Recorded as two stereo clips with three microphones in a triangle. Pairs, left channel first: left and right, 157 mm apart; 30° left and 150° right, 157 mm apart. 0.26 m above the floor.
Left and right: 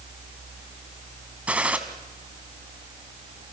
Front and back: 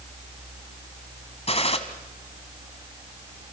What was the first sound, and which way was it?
A gunshot, 10° right.